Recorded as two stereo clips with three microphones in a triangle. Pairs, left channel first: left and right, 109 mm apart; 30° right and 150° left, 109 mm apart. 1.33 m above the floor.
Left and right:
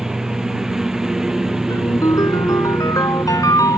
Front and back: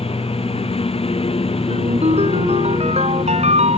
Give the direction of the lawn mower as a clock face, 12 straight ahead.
12 o'clock.